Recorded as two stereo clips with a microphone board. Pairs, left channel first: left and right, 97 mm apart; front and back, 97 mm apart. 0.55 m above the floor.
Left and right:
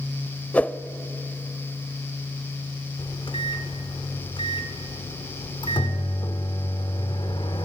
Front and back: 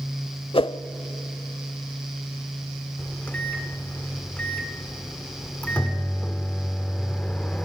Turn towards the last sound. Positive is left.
turn(degrees=75)